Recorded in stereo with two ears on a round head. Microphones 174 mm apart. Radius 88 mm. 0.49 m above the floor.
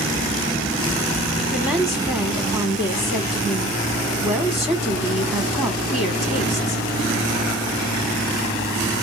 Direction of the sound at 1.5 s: 10° right (ahead or behind).